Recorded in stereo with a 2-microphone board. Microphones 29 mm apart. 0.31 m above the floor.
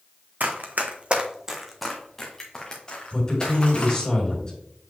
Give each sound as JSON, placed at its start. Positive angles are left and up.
{"t": 0.4, "sound": "running footsteps", "side_deg": -75, "distance_m": 1.2}
{"t": 3.1, "sound": "a woman speaking", "side_deg": 25, "distance_m": 1.8}